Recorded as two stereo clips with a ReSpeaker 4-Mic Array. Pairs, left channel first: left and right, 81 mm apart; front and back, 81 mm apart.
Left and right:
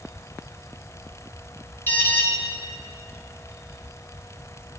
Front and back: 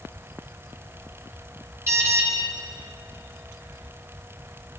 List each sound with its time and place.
1.9 s an alarm: 140° left, 1.8 m